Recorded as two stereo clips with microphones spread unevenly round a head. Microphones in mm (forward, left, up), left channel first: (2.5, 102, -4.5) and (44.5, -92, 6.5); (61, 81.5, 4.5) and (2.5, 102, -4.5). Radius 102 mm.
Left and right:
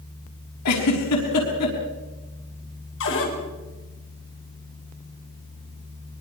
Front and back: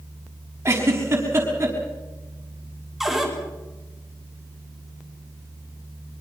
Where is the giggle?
110° left, 6 m.